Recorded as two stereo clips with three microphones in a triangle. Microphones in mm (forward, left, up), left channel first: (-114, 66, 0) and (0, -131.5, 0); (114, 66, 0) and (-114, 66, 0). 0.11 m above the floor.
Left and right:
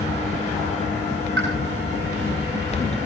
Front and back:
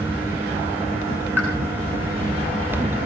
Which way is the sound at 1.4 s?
100° right.